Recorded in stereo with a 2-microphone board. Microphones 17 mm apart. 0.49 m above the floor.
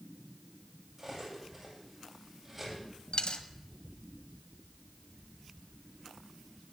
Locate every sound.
1.0 s cutlery clinking: 15° right (ahead or behind), 10 m
3.1 s a dropped coin: 65° left (ahead or behind), 0.9 m